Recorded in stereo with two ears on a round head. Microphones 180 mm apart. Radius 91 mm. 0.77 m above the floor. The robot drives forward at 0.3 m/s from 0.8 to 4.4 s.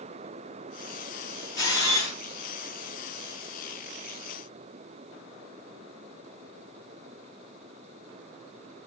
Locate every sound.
1.6 s a camera shutter: 20° left (ahead or behind), 1.9 m